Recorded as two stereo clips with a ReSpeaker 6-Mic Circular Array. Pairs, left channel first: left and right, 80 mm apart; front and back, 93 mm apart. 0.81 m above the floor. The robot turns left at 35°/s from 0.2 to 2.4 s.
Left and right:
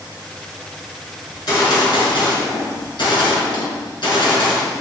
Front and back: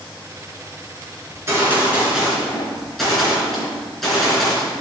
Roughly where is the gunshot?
Behind left.